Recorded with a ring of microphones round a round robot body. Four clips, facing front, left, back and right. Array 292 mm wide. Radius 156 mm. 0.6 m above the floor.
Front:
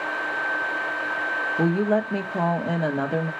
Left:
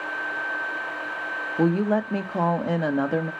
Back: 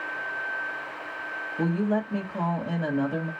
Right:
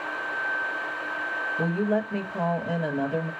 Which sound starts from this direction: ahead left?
A woman speaking, at 1.6 s.